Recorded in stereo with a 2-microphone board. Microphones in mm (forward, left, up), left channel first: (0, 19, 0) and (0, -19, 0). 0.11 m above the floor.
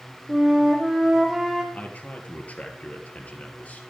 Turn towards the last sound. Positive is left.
turn(degrees=40)  # may be behind; listen again after turning